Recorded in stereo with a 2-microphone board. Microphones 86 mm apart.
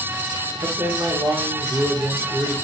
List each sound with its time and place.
0.6 s a man speaking: 65° right (ahead or behind), 1.7 m